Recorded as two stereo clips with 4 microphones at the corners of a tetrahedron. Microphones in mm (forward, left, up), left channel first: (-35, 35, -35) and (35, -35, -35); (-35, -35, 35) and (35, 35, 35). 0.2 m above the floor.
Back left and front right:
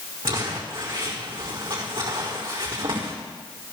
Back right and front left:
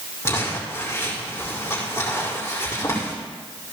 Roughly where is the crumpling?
Right.